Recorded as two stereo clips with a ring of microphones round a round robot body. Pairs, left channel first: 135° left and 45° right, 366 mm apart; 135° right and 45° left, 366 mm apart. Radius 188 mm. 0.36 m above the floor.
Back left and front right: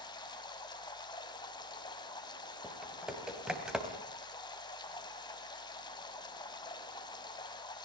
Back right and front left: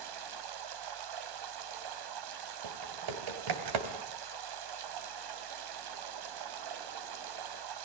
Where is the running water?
55° left, 2 m.